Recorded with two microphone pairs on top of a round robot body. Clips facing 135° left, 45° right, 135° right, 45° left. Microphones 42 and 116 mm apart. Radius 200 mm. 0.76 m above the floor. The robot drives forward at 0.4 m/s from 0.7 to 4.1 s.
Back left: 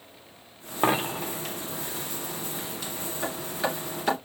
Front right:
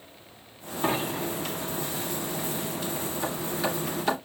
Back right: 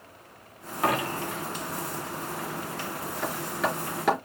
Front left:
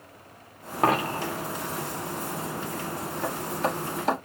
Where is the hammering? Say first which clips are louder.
Back left 1 dB, front left 1 dB; 160° right, 3.5 m.